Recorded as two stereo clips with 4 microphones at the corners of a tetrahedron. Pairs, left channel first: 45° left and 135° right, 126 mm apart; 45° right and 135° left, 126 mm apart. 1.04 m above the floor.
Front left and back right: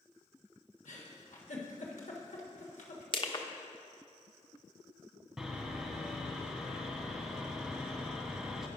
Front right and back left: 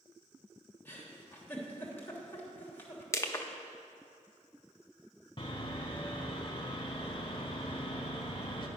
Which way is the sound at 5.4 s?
50° right.